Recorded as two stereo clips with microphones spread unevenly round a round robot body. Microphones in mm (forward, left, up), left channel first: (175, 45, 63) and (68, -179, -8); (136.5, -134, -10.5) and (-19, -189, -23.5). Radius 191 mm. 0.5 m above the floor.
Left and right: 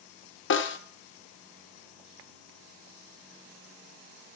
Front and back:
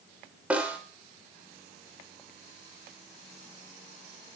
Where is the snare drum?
120° left, 0.5 m.